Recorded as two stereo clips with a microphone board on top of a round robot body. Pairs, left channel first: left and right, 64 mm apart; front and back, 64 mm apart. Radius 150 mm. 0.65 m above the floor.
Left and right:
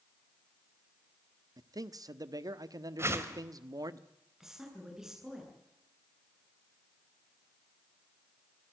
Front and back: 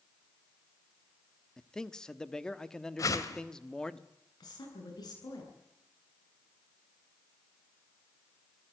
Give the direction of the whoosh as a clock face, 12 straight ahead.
1 o'clock.